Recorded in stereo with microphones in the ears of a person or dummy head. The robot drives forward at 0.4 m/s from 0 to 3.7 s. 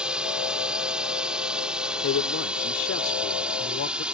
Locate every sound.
0.0 s a drone: 5° right (ahead or behind)
2.0 s a man speaking: 80° left; by 4.0 s 65° left (ahead or behind)